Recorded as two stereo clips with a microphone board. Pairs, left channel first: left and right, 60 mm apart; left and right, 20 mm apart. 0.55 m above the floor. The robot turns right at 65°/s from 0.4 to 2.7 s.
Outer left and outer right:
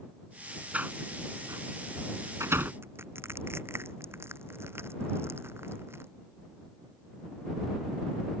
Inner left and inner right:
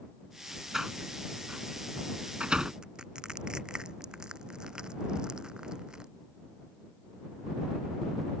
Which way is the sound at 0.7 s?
20° right (ahead or behind).